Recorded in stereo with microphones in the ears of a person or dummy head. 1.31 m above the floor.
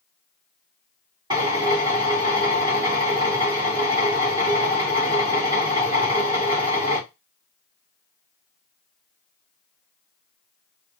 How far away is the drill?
About 1.8 m.